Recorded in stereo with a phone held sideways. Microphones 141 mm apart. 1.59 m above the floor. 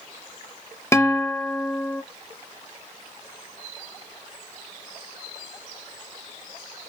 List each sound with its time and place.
0.9 s a guitar: 20° left (ahead or behind), 0.7 m